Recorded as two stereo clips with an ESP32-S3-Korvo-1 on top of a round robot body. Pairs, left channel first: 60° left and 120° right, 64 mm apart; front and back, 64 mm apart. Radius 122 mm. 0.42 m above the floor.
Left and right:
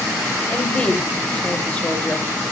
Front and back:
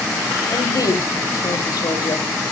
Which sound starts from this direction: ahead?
A woman speaking, at 0.5 s.